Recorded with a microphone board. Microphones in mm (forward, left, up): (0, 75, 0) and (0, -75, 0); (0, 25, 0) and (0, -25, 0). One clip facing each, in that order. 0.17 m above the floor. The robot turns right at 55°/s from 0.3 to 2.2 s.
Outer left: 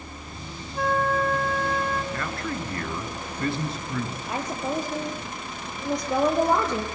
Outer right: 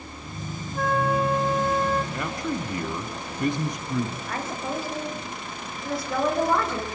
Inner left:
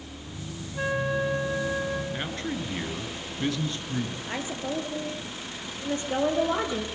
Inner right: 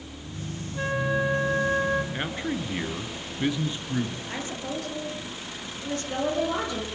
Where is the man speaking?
20° right (ahead or behind), 2 m; by 4.2 s 15° right (ahead or behind), 2 m.